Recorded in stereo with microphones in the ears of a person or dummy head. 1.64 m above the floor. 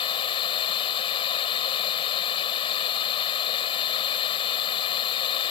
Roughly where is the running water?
Left.